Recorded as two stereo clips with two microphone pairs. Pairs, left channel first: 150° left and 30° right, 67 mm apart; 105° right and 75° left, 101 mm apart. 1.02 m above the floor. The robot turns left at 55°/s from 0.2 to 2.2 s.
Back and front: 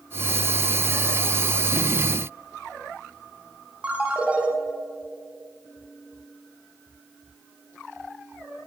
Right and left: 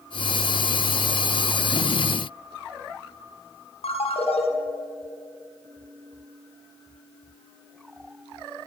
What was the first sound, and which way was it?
A ringtone, 105° right.